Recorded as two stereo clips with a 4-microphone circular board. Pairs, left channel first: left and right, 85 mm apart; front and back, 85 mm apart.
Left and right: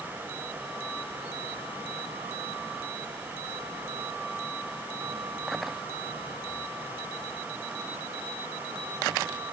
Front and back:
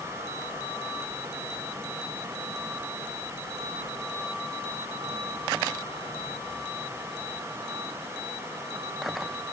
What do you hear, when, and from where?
Only background noise.